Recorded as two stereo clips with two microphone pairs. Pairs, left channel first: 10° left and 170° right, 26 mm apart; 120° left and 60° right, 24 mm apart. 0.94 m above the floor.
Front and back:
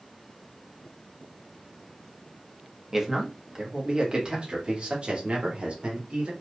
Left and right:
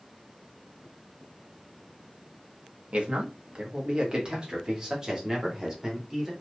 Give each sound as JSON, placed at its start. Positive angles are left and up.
{"t": 2.9, "sound": "a man speaking", "azimuth_deg": -95, "distance_m": 1.4}